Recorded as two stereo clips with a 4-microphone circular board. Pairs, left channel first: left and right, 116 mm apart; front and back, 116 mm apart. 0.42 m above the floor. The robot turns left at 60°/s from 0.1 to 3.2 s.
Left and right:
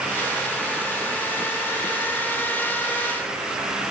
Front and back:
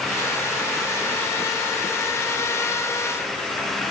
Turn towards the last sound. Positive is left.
No sound to turn to.